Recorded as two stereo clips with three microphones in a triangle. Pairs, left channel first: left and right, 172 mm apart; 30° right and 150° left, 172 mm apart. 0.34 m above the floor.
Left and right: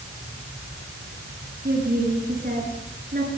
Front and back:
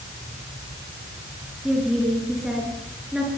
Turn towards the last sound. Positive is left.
turn(degrees=-125)